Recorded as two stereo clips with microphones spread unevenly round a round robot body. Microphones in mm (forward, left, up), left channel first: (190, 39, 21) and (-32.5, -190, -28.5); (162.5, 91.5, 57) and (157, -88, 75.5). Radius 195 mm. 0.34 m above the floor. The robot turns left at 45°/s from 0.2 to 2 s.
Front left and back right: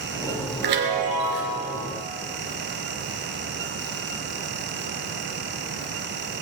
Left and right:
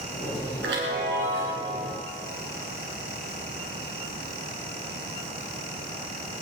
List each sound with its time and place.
0.6 s a chime: 130° right, 2.5 m; by 1.6 s 170° right, 2.5 m